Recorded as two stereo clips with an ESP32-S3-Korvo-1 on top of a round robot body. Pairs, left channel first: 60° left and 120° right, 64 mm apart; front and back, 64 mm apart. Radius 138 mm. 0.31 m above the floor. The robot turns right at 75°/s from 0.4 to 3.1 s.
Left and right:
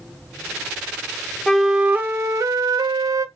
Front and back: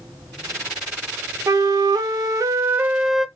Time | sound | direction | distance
1.5 | a flute | 140° left | 0.6 m